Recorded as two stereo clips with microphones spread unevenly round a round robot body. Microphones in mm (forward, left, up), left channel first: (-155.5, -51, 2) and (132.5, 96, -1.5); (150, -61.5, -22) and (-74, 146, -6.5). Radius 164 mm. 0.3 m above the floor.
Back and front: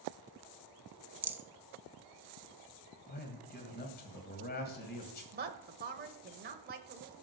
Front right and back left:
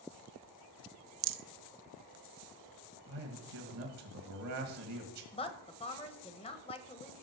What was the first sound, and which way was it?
A rattle, 110° left.